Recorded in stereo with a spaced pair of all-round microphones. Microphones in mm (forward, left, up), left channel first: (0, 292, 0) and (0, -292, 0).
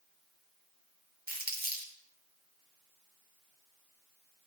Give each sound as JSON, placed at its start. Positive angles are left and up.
{"t": 1.3, "sound": "crumpling", "side_deg": -15, "distance_m": 4.0}